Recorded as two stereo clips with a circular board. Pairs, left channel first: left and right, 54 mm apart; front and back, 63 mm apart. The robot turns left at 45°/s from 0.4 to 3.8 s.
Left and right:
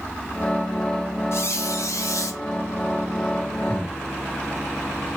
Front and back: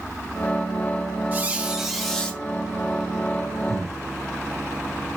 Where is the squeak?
120° left, 0.7 m; by 2.4 s 70° left, 0.7 m.